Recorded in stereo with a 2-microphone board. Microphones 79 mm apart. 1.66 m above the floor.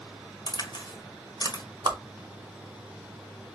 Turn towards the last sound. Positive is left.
turn(degrees=-65)  # may be behind; listen again after turning